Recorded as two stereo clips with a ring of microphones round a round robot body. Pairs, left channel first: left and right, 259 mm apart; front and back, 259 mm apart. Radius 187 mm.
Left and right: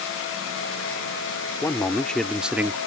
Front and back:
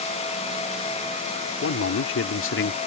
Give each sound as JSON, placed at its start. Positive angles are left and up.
{"t": 1.6, "sound": "a man speaking", "azimuth_deg": 10}